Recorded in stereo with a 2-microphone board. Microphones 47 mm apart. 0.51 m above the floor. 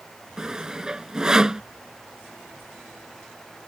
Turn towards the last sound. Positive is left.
turn(degrees=-15)  # may be behind; listen again after turning